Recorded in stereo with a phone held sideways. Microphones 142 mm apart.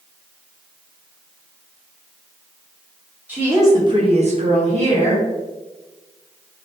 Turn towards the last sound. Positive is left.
turn(degrees=-40)  # may be behind; listen again after turning